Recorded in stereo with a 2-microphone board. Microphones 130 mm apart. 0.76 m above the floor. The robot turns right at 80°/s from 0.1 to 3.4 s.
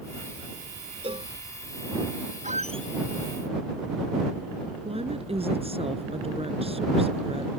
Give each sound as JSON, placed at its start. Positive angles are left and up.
{"t": 1.0, "sound": "a cowbell", "side_deg": -50}
{"t": 2.4, "sound": "a squeak", "azimuth_deg": -70}
{"t": 4.8, "sound": "a woman speaking", "side_deg": -50}